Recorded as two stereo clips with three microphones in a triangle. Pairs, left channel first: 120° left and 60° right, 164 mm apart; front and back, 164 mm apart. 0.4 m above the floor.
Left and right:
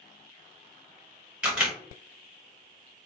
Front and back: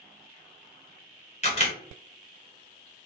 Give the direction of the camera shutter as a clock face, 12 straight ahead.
11 o'clock.